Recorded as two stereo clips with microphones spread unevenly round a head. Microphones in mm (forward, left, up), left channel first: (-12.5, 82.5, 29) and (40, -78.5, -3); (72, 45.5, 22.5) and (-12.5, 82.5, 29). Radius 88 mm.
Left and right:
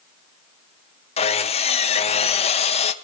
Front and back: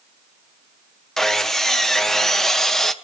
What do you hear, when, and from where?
1.2 s sawing: 55° left, 1.2 m